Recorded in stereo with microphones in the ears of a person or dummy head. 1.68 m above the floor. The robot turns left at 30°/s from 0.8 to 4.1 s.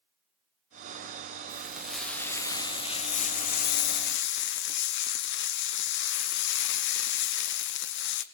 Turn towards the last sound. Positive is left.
turn(degrees=110)